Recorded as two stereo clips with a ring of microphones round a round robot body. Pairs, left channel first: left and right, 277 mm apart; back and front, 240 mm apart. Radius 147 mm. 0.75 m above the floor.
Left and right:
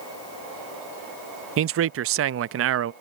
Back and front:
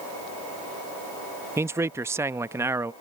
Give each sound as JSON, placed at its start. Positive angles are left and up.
{"t": 1.6, "sound": "a man speaking", "azimuth_deg": -75}